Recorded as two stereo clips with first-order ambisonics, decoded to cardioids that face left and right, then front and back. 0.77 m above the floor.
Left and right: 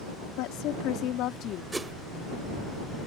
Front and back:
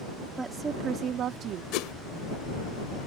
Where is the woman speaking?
100° left; by 1.6 s 140° left.